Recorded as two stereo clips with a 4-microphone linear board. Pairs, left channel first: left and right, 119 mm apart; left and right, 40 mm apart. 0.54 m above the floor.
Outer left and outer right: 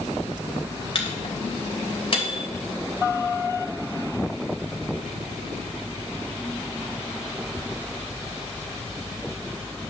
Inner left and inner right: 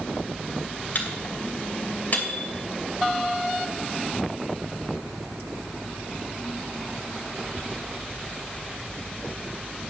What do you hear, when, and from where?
0.9 s a microwave: 45° left (ahead or behind), 2.5 m